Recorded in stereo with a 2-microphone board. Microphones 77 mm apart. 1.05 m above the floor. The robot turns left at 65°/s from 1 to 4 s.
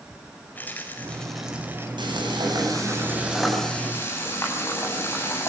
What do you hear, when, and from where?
0.6 s a rattle: 20° left, 4.5 m; by 1.9 s 35° right, 4.5 m
2.0 s frying: 85° right, 8.5 m; by 5.5 s 145° left, 8.5 m